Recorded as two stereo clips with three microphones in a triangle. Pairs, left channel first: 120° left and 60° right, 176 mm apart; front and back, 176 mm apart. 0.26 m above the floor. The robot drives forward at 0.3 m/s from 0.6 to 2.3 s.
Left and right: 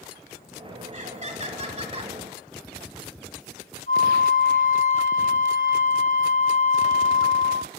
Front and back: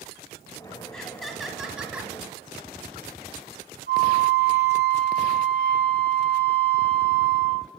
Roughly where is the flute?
Behind.